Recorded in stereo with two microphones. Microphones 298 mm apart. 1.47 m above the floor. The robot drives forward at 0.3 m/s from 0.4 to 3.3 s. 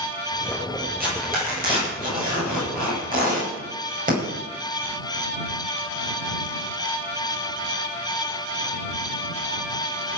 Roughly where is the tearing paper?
Right.